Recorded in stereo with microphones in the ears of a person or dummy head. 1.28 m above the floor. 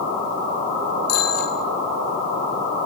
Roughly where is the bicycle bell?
Left.